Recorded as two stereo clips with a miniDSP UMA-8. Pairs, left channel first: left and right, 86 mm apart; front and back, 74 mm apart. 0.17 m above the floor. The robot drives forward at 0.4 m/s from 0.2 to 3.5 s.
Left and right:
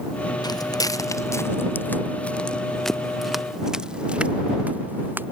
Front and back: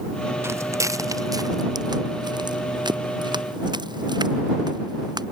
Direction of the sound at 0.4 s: 130° left.